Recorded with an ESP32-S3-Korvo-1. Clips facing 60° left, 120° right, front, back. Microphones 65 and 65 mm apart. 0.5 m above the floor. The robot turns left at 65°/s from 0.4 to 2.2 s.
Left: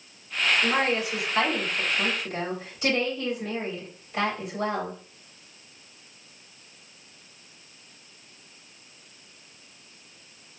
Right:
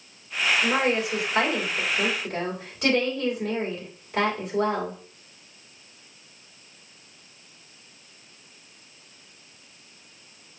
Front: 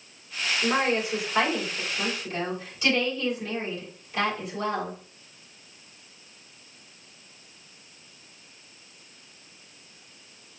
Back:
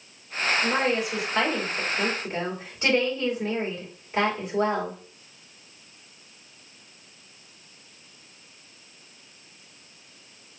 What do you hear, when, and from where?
0.6 s a woman speaking: 30° right, 2.5 m; by 5.0 s 130° right, 2.5 m